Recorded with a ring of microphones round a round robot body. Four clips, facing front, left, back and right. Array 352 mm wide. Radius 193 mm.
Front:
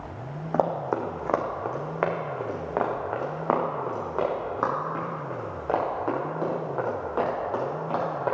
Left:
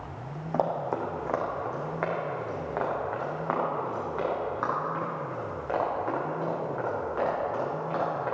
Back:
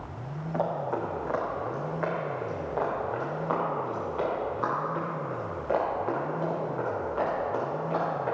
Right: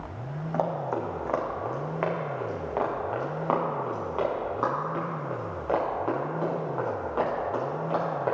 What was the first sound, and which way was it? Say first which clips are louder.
Running footsteps: even, front 4 dB; 15° left.